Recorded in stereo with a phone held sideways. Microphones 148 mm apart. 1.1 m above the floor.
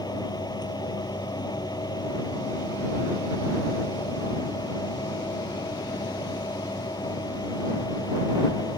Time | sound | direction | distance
0.0 | a fan | 25° left (ahead or behind) | ?